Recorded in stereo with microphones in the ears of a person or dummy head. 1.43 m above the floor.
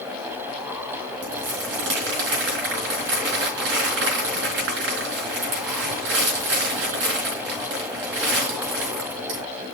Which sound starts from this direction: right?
Crumpling, at 1.2 s.